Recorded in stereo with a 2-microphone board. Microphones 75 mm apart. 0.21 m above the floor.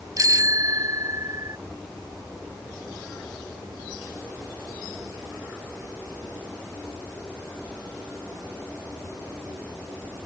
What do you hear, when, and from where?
0.2 s a bicycle bell: 45° right (ahead or behind)